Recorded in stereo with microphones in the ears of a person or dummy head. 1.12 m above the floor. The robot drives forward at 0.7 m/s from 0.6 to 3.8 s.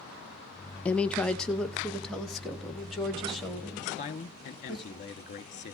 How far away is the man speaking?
About 1.1 m.